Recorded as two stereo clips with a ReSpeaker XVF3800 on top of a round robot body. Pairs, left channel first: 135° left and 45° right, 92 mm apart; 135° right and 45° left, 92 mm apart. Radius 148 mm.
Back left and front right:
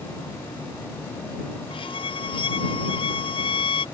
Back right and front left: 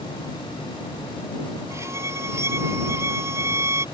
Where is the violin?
110° left.